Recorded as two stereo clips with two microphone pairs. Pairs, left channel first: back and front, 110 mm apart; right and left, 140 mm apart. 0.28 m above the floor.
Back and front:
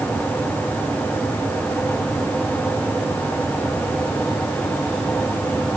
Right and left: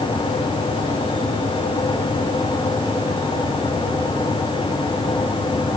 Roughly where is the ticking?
I don't hear ticking.